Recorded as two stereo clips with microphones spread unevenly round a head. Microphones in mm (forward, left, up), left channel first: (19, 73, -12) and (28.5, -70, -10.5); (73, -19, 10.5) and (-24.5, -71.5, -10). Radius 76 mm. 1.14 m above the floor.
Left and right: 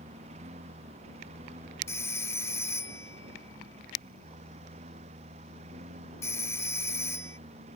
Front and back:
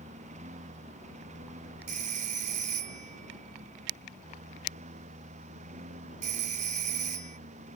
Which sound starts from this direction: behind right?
A lawn mower, at 0.0 s.